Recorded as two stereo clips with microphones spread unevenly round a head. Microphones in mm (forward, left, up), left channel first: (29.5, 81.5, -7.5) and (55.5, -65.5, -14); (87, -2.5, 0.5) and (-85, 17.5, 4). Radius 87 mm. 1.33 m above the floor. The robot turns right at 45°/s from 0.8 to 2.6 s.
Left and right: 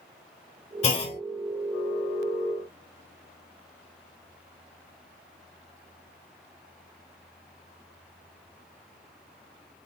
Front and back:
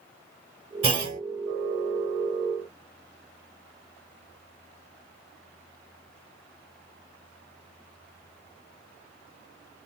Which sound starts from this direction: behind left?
A clunk, at 0.8 s.